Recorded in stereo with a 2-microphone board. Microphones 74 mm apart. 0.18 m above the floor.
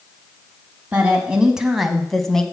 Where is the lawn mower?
No lawn mower in this recording.